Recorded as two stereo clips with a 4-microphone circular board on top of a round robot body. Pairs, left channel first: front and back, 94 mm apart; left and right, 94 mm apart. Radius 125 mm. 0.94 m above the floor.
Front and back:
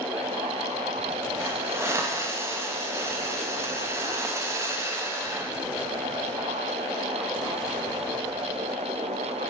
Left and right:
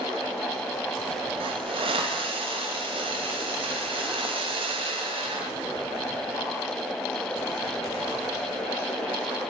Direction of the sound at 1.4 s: 115° right.